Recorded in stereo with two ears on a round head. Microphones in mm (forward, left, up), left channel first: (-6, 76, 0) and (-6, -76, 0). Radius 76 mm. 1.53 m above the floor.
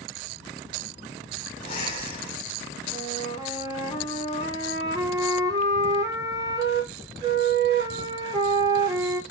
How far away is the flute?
About 3 m.